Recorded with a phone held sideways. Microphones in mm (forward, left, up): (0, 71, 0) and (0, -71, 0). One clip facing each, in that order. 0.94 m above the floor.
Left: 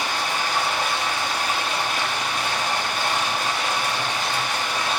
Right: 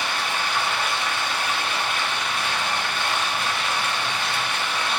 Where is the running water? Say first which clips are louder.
Left 1 dB; 45° left (ahead or behind), 1.3 m.